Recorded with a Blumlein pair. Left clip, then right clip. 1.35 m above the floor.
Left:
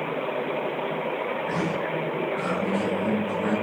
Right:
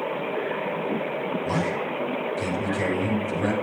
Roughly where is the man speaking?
Ahead right.